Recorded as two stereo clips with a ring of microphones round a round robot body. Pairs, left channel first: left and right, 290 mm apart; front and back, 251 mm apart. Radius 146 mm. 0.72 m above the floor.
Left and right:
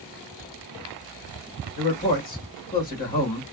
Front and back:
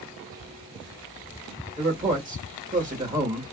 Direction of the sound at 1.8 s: 135° left.